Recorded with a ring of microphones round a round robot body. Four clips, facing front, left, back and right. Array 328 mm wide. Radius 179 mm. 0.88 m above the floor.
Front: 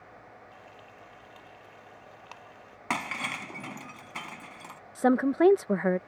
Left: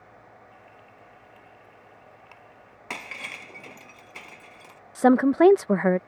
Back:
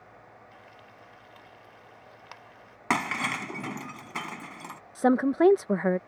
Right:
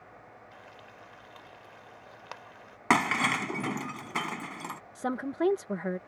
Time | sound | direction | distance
0.5 | frying | 95° right | ?
2.9 | breaking glass | 110° right | ?
5.0 | a woman speaking | 90° left | ?